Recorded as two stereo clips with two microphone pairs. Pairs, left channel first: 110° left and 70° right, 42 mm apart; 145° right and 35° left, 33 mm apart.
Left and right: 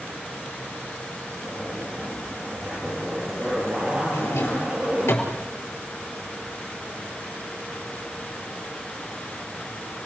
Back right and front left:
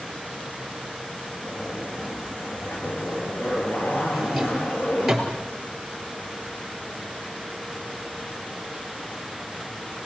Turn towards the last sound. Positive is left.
turn(degrees=120)